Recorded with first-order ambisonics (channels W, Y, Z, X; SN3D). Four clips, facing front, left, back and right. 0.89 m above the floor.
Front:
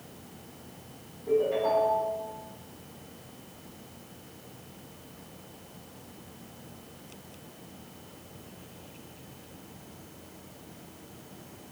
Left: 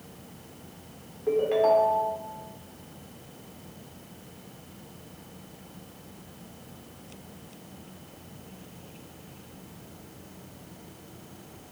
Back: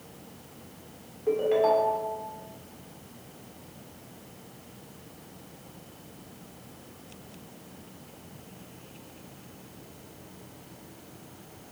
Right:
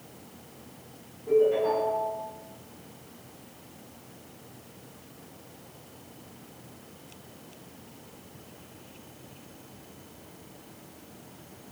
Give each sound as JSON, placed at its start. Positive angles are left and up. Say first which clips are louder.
{"t": 1.3, "sound": "a ringtone", "louder": "left 1 dB, back 2 dB", "azimuth_deg": 130, "distance_m": 1.9}